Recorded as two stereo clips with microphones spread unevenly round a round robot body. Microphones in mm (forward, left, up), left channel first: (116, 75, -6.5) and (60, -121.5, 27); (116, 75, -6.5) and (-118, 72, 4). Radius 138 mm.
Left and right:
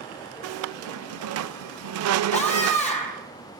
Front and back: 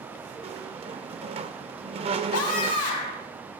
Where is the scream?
15° left, 3 m.